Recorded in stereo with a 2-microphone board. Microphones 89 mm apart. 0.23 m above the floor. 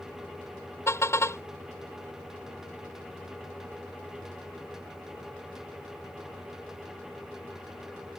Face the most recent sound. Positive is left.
turn(degrees=30)  # may be behind; listen again after turning